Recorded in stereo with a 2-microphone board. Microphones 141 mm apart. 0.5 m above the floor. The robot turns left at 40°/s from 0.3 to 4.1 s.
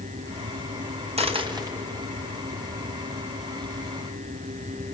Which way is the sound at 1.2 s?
45° right (ahead or behind).